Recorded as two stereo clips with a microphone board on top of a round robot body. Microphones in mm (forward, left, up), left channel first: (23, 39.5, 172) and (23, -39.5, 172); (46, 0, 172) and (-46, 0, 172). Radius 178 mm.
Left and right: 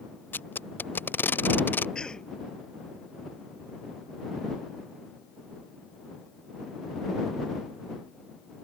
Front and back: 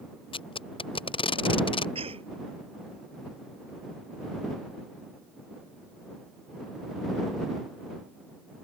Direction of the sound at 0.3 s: 25° left.